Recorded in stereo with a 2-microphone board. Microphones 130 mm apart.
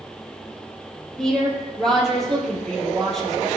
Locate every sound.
1.2 s a woman speaking: 5° left (ahead or behind), 3.5 m